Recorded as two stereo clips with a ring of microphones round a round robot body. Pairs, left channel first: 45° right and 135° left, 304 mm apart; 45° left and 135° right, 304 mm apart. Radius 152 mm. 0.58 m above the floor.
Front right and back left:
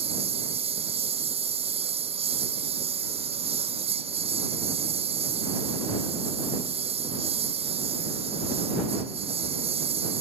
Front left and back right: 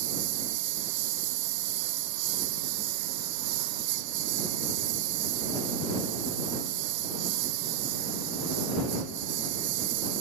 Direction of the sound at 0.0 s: 155° right.